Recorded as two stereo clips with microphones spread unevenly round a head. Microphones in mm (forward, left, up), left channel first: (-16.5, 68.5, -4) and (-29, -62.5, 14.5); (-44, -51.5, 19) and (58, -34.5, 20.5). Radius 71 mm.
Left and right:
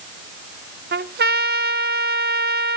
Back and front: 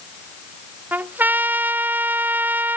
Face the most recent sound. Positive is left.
turn(degrees=-65)